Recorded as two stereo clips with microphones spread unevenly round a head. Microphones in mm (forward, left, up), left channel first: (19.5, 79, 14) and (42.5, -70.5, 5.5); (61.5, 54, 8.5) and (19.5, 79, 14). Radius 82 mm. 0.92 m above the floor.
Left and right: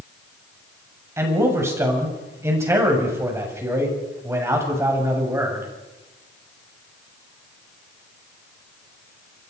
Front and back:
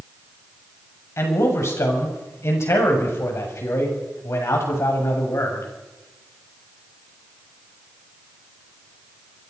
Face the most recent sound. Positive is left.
turn(degrees=-10)